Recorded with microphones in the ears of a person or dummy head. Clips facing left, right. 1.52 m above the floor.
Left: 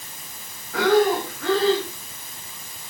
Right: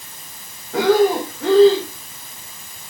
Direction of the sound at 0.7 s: 25° right (ahead or behind).